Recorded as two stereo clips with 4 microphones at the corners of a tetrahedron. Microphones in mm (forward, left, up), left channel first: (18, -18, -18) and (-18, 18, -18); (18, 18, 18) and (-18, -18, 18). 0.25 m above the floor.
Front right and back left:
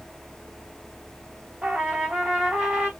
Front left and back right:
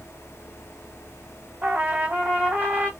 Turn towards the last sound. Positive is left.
turn(degrees=-160)